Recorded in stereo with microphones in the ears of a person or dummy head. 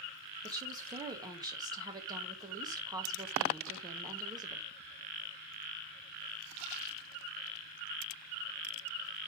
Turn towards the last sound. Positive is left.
turn(degrees=-20)  # may be behind; listen again after turning